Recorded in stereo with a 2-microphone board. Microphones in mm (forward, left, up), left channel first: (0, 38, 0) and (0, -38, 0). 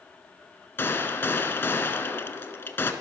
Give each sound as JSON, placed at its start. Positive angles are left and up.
{"t": 0.8, "sound": "a gunshot", "side_deg": 30, "distance_m": 1.3}